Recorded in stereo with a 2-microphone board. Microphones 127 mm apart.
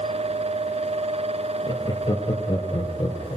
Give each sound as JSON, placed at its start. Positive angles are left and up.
{"t": 1.7, "sound": "laughter", "side_deg": 35, "distance_m": 2.0}